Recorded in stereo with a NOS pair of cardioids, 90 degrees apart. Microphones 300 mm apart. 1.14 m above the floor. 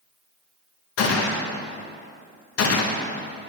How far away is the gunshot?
About 0.8 m.